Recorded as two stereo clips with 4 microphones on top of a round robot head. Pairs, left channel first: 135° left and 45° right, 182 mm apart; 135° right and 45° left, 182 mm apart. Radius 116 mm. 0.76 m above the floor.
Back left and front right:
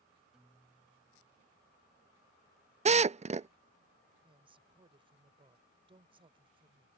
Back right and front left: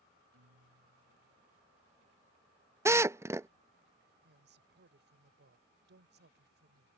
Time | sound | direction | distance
0.3 | a guitar | 40° left | ?
2.9 | a drill | 20° right | ?
4.2 | a woman speaking | 15° left | ?